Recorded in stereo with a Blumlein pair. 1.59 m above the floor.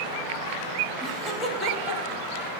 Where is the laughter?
Straight ahead, 1.8 m; by 2.2 s 40° left, 1.8 m.